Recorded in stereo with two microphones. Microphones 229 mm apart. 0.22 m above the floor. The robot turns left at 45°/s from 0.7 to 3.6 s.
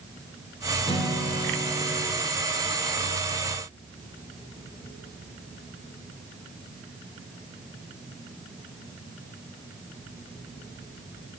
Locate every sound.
0.9 s a guitar: 30° left, 3.5 m; by 2.0 s 25° right, 3.5 m